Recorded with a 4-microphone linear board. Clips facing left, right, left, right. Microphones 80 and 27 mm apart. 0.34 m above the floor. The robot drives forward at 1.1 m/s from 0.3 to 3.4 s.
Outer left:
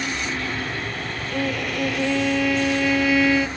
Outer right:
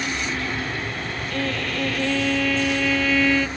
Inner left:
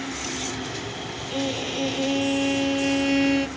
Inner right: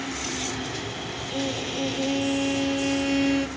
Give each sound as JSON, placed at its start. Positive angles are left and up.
{"t": 1.3, "sound": "a violin", "side_deg": 10}